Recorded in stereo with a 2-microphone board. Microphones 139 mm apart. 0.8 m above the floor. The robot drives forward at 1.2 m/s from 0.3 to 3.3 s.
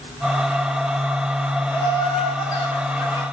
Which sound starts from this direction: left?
Laughter, at 1.7 s.